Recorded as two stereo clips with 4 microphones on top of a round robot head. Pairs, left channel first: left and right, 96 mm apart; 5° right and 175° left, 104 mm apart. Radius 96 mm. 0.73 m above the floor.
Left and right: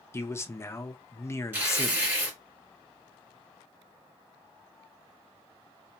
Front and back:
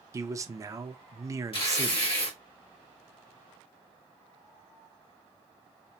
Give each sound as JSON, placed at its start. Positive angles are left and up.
{"t": 0.1, "sound": "a man speaking", "azimuth_deg": 135, "distance_m": 0.5}
{"t": 1.5, "sound": "tearing paper", "azimuth_deg": -25, "distance_m": 1.6}